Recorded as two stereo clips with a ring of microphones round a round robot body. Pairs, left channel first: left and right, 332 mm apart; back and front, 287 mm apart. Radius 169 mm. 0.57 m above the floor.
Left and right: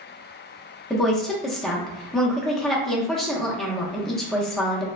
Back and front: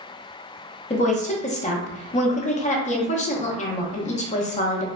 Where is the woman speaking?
175° left, 0.6 m.